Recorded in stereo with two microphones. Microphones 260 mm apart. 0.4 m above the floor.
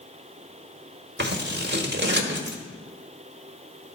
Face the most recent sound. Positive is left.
turn(degrees=-40)  # may be behind; listen again after turning